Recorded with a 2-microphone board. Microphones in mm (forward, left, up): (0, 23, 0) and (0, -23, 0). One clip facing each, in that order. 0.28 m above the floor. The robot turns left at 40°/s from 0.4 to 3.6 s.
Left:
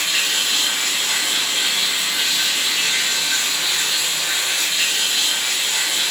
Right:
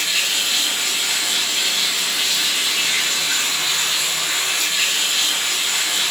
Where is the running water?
70° left, 1.9 m; by 6.1 s 60° right, 1.9 m.